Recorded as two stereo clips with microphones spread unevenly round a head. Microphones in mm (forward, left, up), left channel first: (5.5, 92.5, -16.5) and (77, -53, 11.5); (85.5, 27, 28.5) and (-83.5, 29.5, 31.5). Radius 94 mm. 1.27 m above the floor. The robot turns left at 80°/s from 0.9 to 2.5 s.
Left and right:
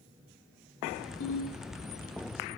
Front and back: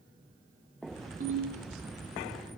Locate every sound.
1.2 s a ringtone: 135° left, 1.0 m; by 1.6 s 105° left, 1.0 m